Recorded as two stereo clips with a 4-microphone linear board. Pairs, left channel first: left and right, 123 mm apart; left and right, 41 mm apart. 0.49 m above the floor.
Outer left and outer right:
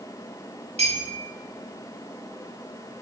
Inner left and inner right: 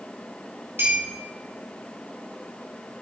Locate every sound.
0.8 s a clink: 60° right (ahead or behind), 2 m